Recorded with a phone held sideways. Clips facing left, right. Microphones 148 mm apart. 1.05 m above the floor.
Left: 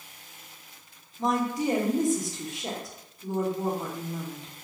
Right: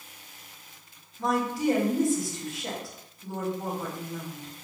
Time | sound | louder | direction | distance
1.2 | a woman speaking | even | 20° left (ahead or behind) | 1.0 m